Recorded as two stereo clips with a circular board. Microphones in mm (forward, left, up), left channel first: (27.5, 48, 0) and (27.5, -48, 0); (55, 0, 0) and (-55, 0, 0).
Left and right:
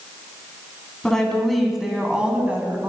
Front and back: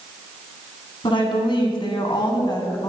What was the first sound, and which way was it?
A woman speaking, 10° left.